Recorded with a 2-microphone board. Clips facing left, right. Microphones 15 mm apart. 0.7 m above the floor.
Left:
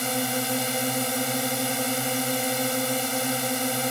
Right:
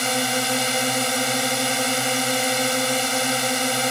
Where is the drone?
35° right (ahead or behind).